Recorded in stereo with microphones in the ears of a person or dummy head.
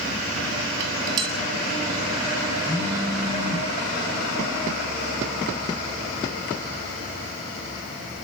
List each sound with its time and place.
0.8 s dishes clattering: 20° right (ahead or behind), 0.6 m
2.7 s a phone buzzing: 20° left (ahead or behind), 4 m